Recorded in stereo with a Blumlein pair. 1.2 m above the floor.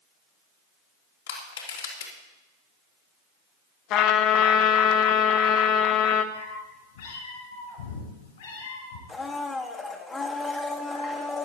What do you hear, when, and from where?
1.3 s crushing: 60° left, 3 m
3.9 s a trumpet: 35° left, 1.2 m
6.3 s a cat meowing: 65° left, 5 m
9.1 s a blender: 15° left, 1.5 m